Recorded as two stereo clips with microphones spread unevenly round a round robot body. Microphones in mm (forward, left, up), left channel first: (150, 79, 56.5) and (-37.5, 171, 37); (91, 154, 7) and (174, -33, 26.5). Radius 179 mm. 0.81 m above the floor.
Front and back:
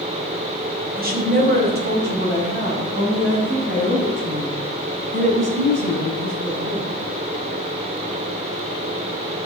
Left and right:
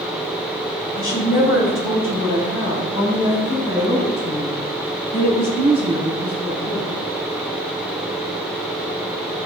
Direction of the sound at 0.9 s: 110° left.